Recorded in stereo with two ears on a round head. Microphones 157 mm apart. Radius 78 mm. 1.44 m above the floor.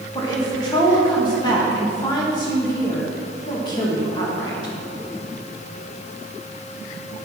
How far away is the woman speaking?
About 2 m.